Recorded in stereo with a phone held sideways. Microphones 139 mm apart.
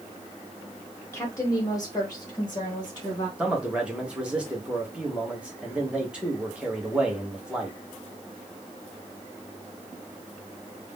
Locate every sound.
1.1 s a woman speaking: 20° left (ahead or behind), 0.5 m; by 3.3 s 25° left (ahead or behind), 1.4 m
3.4 s a man speaking: 10° right (ahead or behind), 0.9 m